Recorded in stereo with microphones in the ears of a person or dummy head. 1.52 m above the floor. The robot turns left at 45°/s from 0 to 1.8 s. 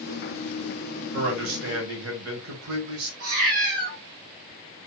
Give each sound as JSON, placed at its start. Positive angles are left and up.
{"t": 1.1, "sound": "a man speaking", "side_deg": -65, "distance_m": 1.5}
{"t": 3.2, "sound": "a cat meowing", "side_deg": -50, "distance_m": 2.0}